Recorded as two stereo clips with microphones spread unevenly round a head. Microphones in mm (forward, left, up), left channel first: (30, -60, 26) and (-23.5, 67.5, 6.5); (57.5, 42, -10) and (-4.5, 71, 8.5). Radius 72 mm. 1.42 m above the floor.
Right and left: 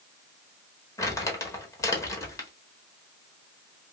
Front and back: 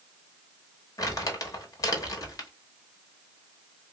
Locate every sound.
1.0 s crumpling: 35° right, 0.8 m